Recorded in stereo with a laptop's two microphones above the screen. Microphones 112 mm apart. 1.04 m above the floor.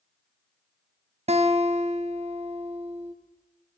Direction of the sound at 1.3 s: 70° right (ahead or behind).